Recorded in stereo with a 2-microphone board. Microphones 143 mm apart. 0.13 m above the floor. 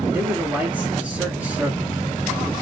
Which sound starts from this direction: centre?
A man speaking, at 0.1 s.